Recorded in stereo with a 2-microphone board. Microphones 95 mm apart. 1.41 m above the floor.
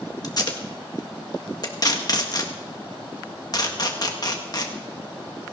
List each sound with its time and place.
0.2 s tape being pulled: 45° left (ahead or behind), 1.7 m